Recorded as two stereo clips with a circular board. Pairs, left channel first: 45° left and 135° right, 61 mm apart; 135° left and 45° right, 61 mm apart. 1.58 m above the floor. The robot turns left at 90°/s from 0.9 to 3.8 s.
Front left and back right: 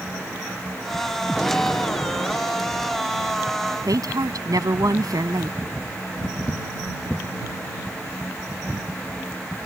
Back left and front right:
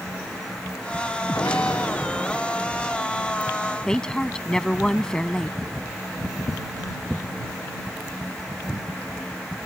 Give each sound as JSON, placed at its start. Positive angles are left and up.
{"t": 1.3, "sound": "an explosion", "azimuth_deg": 140}
{"t": 3.9, "sound": "a woman speaking", "azimuth_deg": -145}